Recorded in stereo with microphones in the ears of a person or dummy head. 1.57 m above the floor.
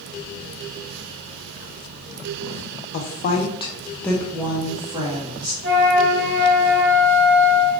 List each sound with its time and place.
2.9 s a woman speaking: 65° left (ahead or behind), 0.8 m; by 5.5 s 30° right (ahead or behind), 1.4 m
5.6 s a flute: 70° right (ahead or behind), 1.3 m